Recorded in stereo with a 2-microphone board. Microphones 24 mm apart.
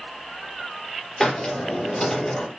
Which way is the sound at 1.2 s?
20° left (ahead or behind).